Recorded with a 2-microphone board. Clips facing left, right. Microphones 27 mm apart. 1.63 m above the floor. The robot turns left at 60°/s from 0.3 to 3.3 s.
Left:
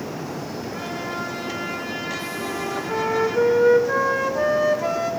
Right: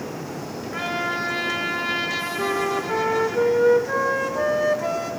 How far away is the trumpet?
About 2 m.